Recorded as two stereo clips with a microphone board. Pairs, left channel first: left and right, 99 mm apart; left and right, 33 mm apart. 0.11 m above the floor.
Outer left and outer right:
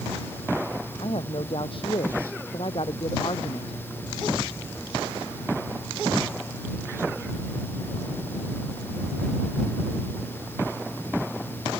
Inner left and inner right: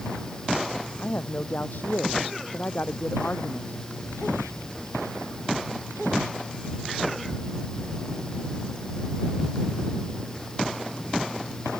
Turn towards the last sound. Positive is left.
turn(degrees=65)  # may be behind; listen again after turning